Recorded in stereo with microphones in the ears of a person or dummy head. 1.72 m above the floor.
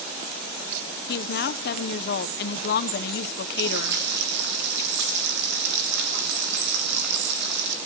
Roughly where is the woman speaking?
Left.